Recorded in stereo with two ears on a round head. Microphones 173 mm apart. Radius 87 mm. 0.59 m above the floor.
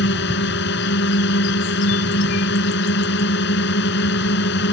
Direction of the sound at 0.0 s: 60° left (ahead or behind).